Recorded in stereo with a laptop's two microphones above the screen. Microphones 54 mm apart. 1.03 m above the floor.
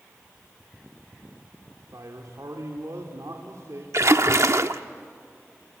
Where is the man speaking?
85° right, 2.5 m.